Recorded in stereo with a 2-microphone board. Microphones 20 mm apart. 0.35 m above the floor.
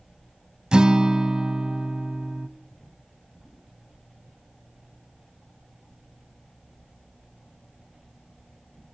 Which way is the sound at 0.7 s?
50° right (ahead or behind).